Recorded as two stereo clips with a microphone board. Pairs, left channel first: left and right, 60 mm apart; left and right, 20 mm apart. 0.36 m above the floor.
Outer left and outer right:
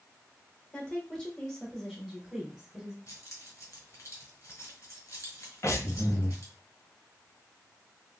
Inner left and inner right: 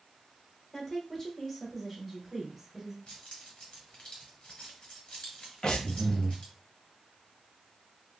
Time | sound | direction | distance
0.7 | a woman speaking | 15° left (ahead or behind) | 1.2 m
3.1 | keys jangling | 55° left (ahead or behind) | 1.7 m
5.6 | breathing | 60° left (ahead or behind) | 0.9 m